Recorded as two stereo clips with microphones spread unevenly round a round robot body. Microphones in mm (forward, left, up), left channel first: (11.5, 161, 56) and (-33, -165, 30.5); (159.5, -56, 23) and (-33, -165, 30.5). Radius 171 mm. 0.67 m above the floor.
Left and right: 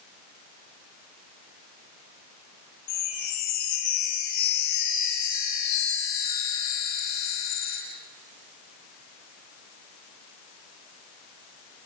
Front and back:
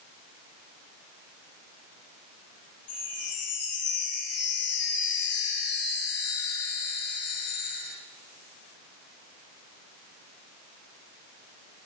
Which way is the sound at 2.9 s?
75° left.